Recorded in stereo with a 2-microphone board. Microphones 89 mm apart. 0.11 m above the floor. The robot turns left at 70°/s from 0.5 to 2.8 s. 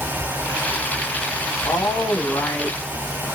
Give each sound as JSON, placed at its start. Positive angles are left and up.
{"t": 1.6, "sound": "a woman speaking", "side_deg": 25, "distance_m": 1.6}